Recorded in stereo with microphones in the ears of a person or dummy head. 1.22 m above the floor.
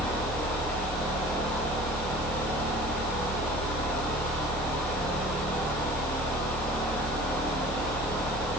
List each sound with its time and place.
0.0 s a fan: 5° left (ahead or behind), 3.5 m